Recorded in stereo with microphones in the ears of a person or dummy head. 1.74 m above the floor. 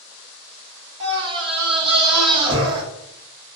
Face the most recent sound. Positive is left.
turn(degrees=-30)  # may be behind; listen again after turning